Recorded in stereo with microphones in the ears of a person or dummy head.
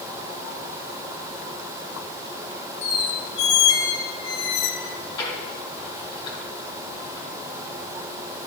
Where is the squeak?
65° left (ahead or behind), 1.5 m.